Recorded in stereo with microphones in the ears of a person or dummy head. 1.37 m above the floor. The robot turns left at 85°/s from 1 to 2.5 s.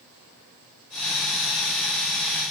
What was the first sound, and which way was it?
Only background noise.